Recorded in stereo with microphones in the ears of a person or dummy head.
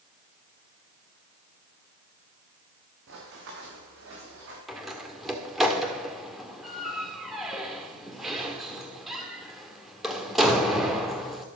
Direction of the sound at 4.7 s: Centre (ahead or behind).